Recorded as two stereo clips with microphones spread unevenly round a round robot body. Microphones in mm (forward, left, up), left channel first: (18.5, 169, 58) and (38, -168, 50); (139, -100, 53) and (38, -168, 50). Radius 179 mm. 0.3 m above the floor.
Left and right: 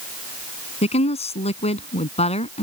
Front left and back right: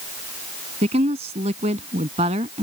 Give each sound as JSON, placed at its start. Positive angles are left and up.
{"t": 0.8, "sound": "a woman speaking", "azimuth_deg": 165}